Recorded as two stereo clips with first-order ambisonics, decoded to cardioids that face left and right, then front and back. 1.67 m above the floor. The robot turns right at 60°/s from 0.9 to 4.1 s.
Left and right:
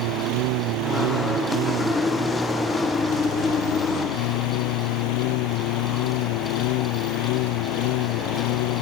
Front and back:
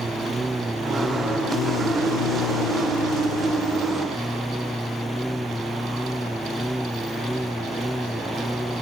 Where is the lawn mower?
100° right; by 8.8 s 90° left.